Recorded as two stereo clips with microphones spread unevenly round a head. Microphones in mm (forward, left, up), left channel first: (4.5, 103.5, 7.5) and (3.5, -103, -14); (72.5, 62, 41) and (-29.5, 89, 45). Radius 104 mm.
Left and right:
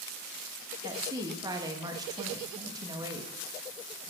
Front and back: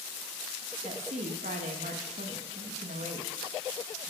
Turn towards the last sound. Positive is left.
turn(degrees=-165)